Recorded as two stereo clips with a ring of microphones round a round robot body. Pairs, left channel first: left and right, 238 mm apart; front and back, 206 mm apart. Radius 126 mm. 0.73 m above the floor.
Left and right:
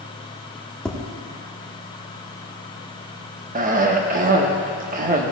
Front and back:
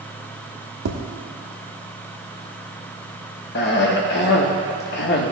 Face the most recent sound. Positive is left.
turn(degrees=-35)